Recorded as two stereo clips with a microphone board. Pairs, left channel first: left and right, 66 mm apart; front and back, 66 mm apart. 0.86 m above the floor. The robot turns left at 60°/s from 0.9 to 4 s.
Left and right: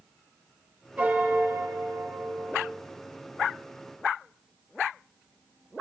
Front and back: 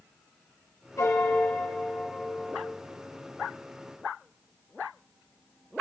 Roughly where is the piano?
Ahead right.